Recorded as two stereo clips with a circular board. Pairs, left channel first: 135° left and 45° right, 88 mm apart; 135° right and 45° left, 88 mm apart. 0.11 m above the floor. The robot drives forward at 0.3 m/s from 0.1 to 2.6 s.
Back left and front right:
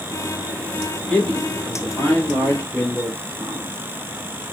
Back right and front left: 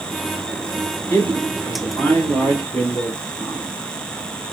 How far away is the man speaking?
About 1.6 m.